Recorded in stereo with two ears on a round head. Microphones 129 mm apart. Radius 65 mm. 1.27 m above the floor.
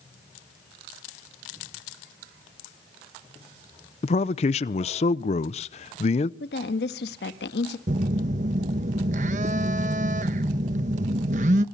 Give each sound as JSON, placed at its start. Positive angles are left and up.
{"t": 4.0, "sound": "a man speaking", "side_deg": 45, "distance_m": 0.7}
{"t": 6.4, "sound": "a woman speaking", "side_deg": 80, "distance_m": 1.5}
{"t": 7.9, "sound": "a phone buzzing", "side_deg": -50, "distance_m": 0.9}